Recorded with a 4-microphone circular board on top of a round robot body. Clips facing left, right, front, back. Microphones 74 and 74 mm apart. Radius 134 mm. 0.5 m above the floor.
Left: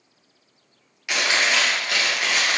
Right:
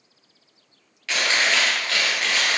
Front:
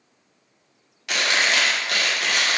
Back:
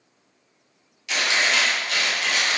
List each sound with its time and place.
1.1 s chewing: 15° left, 1.3 m